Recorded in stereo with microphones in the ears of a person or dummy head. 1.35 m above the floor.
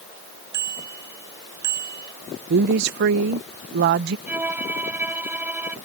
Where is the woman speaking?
55° right (ahead or behind).